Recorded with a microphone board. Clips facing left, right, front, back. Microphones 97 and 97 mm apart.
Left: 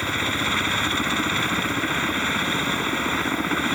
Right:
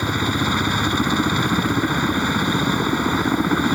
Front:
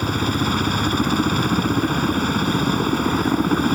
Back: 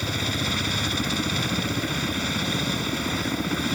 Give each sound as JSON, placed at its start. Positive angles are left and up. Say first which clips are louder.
{"t": 0.0, "sound": "a helicopter", "louder": "right 4 dB, front 8 dB", "azimuth_deg": -20}